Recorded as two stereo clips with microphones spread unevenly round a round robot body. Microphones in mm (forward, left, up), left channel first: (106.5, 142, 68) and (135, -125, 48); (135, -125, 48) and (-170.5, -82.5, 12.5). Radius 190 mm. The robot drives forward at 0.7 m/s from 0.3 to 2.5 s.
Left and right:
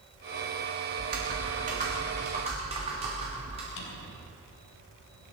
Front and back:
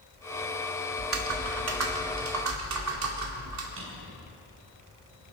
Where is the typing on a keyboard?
140° right, 1.7 m; by 3.7 s 155° right, 2.5 m.